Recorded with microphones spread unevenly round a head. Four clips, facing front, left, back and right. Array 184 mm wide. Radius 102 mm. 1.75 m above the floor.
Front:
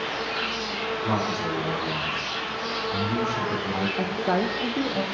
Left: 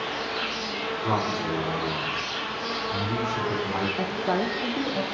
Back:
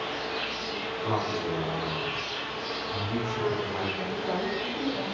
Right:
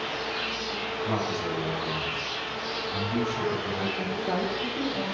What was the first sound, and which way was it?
An insect, 30° left.